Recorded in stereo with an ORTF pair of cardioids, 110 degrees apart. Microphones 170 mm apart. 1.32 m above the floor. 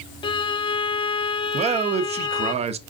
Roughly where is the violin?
Ahead left.